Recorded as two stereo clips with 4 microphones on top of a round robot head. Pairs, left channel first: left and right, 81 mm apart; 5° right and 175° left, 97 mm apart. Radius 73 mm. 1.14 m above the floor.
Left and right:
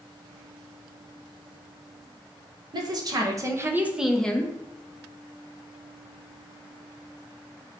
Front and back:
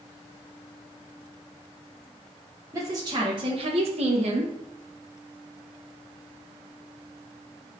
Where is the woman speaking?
120° right, 1.4 m; by 4.5 s 155° left, 0.9 m.